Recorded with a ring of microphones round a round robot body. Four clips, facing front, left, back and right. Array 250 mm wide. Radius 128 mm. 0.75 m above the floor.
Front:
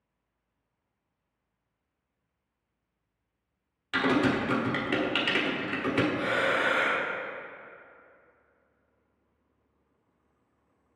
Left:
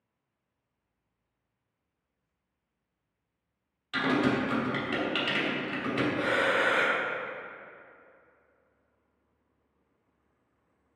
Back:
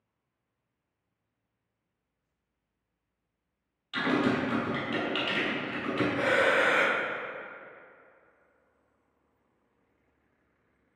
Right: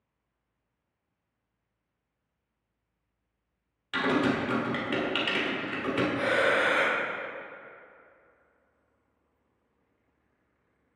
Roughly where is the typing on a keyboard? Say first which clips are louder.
Even, front 2 dB; ahead right.